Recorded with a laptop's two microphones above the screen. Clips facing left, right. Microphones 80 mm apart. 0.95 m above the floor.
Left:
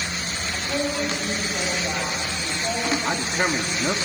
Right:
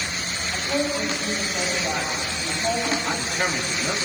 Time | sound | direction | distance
0.5 | a woman speaking | 10° right (ahead or behind) | 5.5 m
3.0 | a man speaking | 25° left (ahead or behind) | 1.9 m